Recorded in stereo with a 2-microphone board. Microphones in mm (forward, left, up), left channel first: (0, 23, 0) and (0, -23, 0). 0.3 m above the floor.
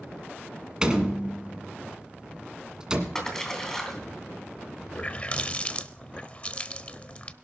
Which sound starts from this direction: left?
A running tap, at 4.9 s.